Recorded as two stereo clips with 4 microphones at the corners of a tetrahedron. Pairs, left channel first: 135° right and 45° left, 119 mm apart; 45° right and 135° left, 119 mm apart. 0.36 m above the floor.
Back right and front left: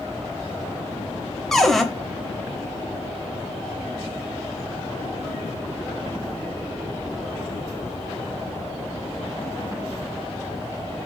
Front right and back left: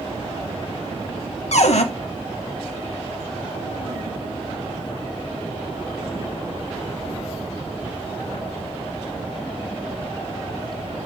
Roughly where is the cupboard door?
Ahead right.